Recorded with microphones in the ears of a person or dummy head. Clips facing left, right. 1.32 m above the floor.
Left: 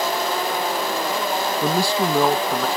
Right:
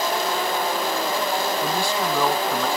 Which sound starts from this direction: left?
A man speaking, at 1.6 s.